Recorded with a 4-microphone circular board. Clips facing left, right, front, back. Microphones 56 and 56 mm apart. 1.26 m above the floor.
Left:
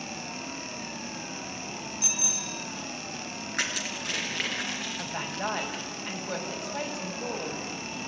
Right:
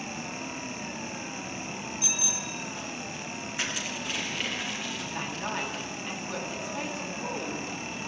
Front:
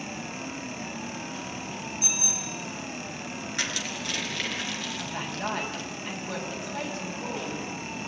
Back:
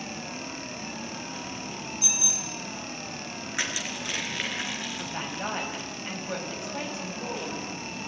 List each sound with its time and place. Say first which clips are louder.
2.0 s a bicycle bell: right 1 dB, front 1 dB; 50° left, 2.5 m
3.5 s crushing: left 2 dB, back 1 dB; 110° left, 4.5 m
5.0 s a woman speaking: left 1 dB, front 1 dB; 105° left, 7.5 m